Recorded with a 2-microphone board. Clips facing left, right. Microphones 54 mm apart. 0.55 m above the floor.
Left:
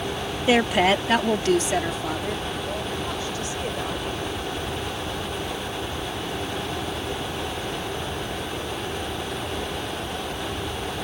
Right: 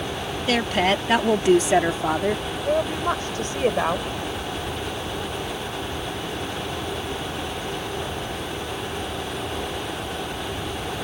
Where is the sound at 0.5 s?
20° left (ahead or behind); by 2.4 s 40° right (ahead or behind).